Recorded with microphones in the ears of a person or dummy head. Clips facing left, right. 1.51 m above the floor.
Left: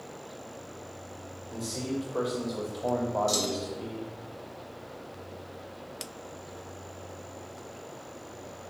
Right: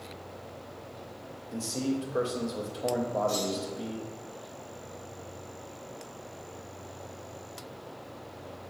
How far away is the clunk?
About 0.7 m.